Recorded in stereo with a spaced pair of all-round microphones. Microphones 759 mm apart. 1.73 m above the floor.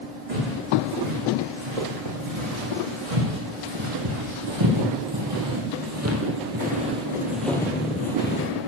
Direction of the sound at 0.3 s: 60° right (ahead or behind).